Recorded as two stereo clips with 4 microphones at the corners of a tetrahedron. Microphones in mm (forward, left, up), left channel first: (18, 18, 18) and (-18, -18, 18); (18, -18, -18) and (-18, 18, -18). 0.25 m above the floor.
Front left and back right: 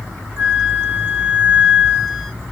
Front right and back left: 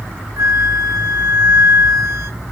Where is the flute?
160° left, 1.4 m.